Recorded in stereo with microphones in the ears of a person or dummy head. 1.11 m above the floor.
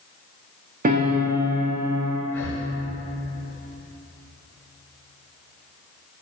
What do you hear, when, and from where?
0.8 s a piano: 45° right (ahead or behind), 1.3 m
2.3 s breathing: 15° left (ahead or behind), 1.1 m